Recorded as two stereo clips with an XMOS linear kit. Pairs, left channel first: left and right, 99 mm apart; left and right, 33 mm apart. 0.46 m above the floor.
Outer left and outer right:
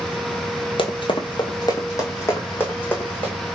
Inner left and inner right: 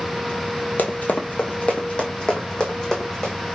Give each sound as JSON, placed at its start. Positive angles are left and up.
{"t": 0.8, "sound": "running footsteps", "side_deg": 65, "distance_m": 0.9}